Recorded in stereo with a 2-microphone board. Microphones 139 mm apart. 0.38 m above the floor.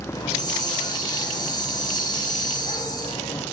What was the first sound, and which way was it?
A hiss, 30° left (ahead or behind).